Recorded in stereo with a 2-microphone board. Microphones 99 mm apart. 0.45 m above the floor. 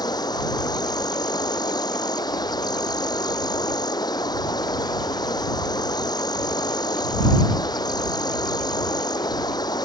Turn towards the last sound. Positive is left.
turn(degrees=45)  # may be behind; listen again after turning